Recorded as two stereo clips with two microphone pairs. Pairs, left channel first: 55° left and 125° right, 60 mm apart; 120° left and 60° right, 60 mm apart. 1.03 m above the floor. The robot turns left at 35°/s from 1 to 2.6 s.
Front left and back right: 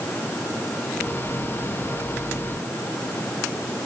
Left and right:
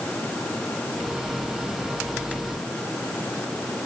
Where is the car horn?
No car horn in this recording.